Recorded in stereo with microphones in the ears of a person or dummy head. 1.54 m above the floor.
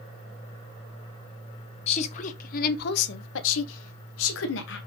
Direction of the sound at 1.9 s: 40° left (ahead or behind).